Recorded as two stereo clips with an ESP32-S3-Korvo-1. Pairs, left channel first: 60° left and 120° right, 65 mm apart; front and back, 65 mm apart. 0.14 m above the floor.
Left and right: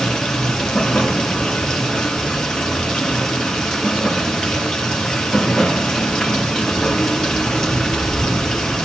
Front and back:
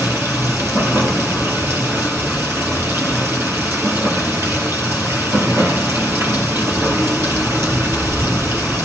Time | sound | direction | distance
0.0 | running water | 140° left | 2.5 m